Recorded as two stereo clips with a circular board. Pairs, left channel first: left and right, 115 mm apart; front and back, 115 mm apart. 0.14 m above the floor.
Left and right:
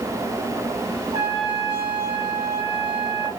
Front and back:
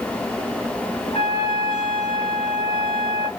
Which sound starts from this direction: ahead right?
A trumpet, at 1.1 s.